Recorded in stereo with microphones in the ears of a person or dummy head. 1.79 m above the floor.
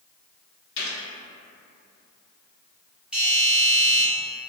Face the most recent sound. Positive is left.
turn(degrees=-5)  # may be behind; listen again after turning